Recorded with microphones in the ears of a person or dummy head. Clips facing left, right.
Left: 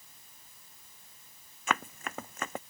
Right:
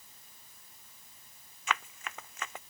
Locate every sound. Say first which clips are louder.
1.7 s running footsteps: left 3 dB; 45° left (ahead or behind)